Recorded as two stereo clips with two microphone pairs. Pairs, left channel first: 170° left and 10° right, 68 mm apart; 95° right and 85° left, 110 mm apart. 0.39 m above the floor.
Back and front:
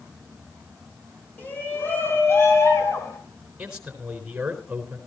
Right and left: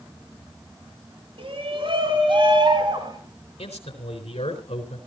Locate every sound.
1.4 s a shout: 110° left, 3.5 m; by 3.2 s 130° left, 4.5 m
3.6 s a man speaking: 85° right, 4 m